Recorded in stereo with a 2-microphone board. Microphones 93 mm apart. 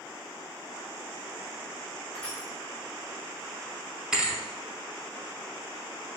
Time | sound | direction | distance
2.1 | crushing | 10° left (ahead or behind) | 1.5 m
4.1 | a thud | 10° right (ahead or behind) | 0.7 m